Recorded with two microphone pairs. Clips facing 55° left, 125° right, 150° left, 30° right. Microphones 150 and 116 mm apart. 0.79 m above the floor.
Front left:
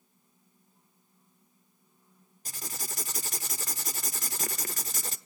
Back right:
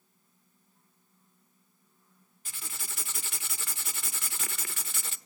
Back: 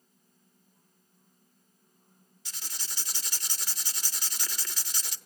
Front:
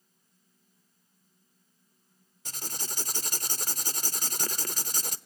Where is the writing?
10° left, 0.8 m.